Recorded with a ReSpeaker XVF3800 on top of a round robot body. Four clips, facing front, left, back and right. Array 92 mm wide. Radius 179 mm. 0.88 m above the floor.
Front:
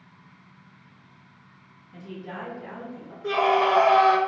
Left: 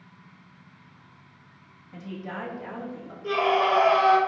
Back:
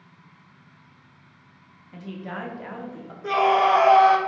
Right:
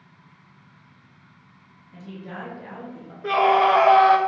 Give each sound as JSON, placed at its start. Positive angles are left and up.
{"t": 1.9, "sound": "a woman speaking", "azimuth_deg": 155, "distance_m": 2.5}
{"t": 3.2, "sound": "a scream", "azimuth_deg": -110, "distance_m": 1.8}